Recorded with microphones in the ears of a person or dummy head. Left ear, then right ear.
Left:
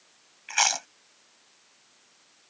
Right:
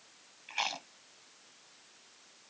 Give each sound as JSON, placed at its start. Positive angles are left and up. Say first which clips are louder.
{"t": 0.5, "sound": "chewing", "louder": "left 10 dB", "side_deg": 55}